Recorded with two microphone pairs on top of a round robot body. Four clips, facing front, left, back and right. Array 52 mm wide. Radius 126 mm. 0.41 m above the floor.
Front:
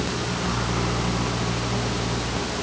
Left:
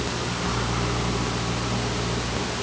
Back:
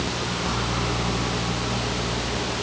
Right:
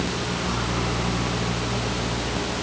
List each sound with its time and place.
Only background noise.